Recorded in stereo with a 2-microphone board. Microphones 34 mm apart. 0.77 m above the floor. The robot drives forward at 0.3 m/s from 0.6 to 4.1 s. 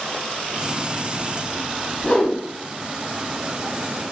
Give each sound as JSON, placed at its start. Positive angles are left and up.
{"t": 2.0, "sound": "a whoosh", "side_deg": 35, "distance_m": 1.0}